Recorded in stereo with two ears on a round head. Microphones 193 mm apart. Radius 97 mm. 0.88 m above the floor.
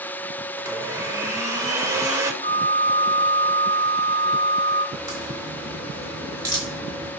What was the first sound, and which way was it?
A blender, 15° right (ahead or behind).